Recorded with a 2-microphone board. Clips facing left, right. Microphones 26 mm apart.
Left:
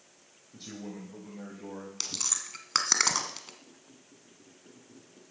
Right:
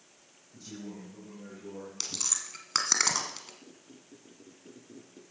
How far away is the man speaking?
About 2.5 m.